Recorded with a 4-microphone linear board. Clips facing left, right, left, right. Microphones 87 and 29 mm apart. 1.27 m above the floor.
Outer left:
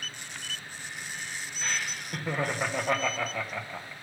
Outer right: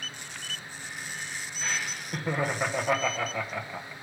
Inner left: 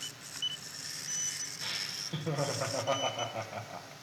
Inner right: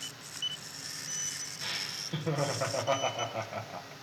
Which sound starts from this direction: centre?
Laughter, at 1.6 s.